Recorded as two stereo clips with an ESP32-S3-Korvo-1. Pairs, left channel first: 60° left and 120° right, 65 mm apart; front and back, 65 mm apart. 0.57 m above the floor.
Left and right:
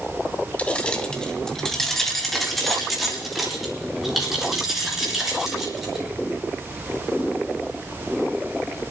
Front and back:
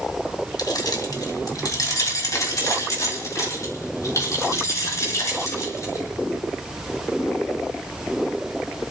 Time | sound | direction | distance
0.6 | keys jangling | 10° right | 1.5 m